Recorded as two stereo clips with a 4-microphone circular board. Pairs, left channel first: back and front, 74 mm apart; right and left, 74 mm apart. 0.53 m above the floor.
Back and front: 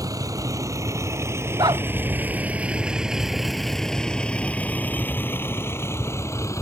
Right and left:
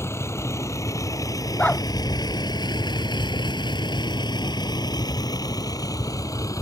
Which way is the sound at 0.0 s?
35° right.